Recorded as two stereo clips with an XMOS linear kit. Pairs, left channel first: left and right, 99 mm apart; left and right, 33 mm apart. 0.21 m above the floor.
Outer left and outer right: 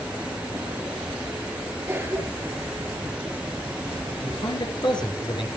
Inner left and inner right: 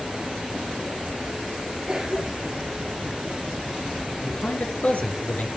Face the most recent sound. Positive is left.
turn(degrees=50)  # may be behind; listen again after turning